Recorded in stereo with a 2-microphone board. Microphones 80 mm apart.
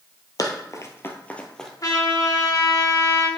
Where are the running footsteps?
50° left (ahead or behind), 1.1 m; by 1.7 s 5° left (ahead or behind), 1.2 m.